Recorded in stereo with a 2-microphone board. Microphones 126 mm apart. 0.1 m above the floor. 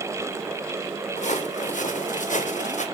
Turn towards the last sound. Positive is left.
turn(degrees=75)  # may be behind; listen again after turning